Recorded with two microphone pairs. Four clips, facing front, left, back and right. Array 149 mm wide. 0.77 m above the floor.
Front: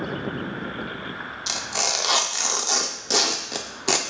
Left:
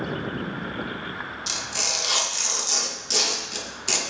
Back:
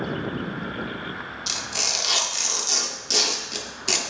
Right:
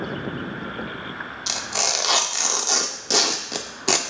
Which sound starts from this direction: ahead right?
Tearing paper, at 1.5 s.